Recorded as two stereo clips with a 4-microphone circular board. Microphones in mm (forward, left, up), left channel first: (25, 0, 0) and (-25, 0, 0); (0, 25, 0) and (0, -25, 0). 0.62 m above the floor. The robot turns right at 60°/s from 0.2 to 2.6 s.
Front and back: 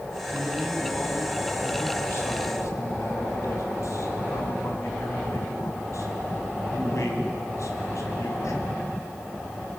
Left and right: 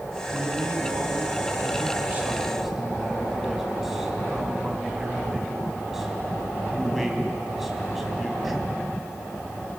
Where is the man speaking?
140° right, 4 m; by 8.7 s 5° right, 4 m.